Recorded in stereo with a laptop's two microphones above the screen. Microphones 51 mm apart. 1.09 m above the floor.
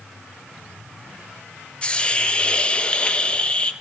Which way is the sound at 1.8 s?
25° left (ahead or behind).